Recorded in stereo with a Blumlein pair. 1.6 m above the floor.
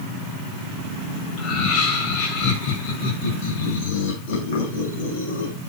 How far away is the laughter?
About 8 m.